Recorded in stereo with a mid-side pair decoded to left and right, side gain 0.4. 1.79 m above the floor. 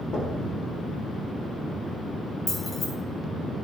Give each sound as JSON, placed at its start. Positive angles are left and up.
{"t": 0.1, "sound": "knocking", "azimuth_deg": 50, "distance_m": 3.5}
{"t": 2.5, "sound": "keys jangling", "azimuth_deg": 45, "distance_m": 3.0}